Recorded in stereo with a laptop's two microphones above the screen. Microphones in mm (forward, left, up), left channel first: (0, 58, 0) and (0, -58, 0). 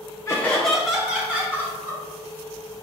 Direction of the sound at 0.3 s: 25° left (ahead or behind).